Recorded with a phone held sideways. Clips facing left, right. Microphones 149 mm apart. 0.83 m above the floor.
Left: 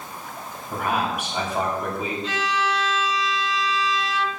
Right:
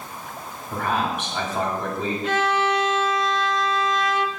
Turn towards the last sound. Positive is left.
turn(degrees=-55)  # may be behind; listen again after turning